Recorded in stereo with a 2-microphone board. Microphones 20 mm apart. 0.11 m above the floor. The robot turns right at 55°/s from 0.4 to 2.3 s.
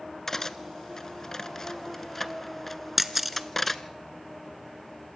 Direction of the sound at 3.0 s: 5° right (ahead or behind).